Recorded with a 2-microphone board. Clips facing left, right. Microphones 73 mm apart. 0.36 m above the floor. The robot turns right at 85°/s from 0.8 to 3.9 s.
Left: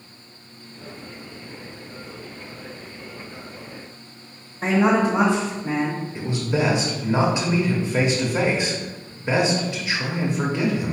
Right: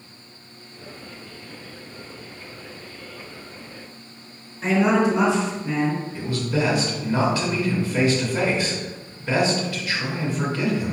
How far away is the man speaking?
About 1.0 m.